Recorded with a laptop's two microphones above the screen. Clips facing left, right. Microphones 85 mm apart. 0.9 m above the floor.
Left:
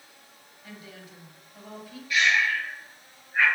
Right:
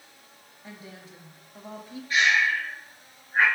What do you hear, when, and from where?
0.6 s a woman speaking: 25° right (ahead or behind), 1.0 m
2.1 s breathing: 40° right (ahead or behind), 2.5 m